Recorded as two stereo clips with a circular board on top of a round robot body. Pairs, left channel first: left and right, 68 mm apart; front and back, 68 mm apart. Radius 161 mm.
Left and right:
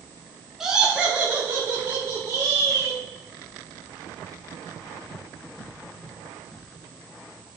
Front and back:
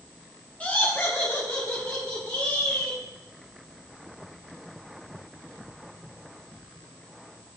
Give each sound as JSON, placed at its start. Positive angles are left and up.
{"t": 0.6, "sound": "laughter", "azimuth_deg": -20, "distance_m": 1.4}